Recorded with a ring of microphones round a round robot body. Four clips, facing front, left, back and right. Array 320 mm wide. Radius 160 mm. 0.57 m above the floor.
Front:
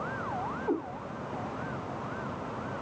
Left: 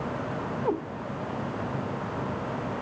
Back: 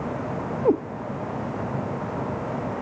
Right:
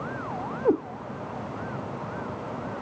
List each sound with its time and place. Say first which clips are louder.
0.7 s a cat meowing: right 6 dB, back 11 dB; 150° right, 0.9 m